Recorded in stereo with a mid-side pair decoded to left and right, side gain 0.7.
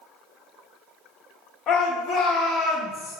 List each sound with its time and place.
1.7 s a shout: 40° left, 1.3 m; by 3.2 s 10° left, 0.8 m